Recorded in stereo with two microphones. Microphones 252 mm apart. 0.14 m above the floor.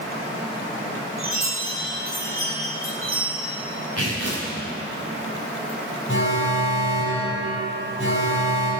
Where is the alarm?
55° left (ahead or behind), 4 m.